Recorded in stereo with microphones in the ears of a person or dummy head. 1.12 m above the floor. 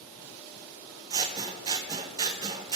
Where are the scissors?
20° right (ahead or behind), 0.7 m.